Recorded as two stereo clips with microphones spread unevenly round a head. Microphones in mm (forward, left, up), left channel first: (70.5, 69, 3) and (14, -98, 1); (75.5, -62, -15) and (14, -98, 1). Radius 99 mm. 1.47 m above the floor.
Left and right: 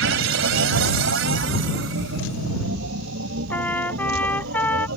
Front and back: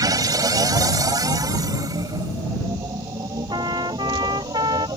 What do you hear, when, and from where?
0.0 s a machine running: 135° right
3.5 s a trumpet: 155° left